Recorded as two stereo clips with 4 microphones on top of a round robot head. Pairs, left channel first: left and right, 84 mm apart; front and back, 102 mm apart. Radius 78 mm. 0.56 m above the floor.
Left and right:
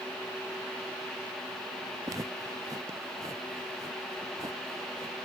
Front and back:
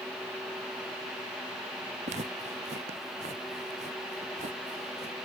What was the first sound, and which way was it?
Footsteps, 150° right.